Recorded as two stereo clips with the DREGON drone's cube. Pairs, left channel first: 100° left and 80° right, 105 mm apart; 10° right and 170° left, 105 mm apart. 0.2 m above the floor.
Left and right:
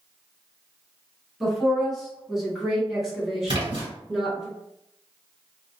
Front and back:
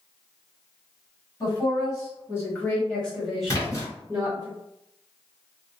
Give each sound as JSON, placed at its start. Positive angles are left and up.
{"t": 1.4, "sound": "a woman speaking", "azimuth_deg": 10, "distance_m": 1.7}
{"t": 3.5, "sound": "a splash", "azimuth_deg": -60, "distance_m": 1.8}